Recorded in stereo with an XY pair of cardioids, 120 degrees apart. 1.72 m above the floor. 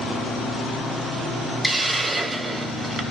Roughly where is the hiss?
Ahead right.